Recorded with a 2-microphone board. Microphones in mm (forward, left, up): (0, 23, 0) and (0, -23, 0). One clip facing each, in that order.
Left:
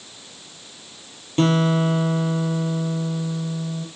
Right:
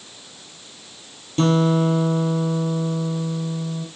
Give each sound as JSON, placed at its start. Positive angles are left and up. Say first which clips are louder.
{"t": 1.4, "sound": "a guitar", "louder": "right 1 dB", "side_deg": 35, "distance_m": 5.0}